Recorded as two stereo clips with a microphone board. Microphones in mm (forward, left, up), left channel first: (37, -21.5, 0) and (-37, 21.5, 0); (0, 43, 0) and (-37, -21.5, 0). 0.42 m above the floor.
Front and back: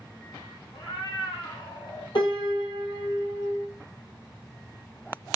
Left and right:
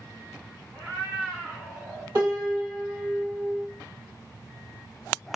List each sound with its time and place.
0.7 s a cat meowing: 55° right, 1.3 m; by 2.0 s 45° right, 2 m
2.1 s a piano: 60° right, 2.5 m